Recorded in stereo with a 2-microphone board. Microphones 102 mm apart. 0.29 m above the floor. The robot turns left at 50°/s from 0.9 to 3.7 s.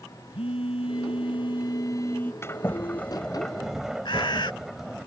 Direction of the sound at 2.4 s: 60° left.